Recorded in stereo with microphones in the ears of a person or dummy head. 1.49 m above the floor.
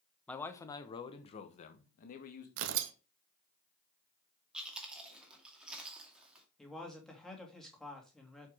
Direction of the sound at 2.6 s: 70° right (ahead or behind).